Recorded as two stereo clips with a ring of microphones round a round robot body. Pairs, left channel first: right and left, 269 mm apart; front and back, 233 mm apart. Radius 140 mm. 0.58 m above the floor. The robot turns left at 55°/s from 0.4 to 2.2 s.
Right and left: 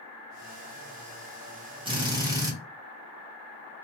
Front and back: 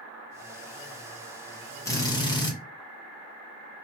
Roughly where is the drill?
Ahead left.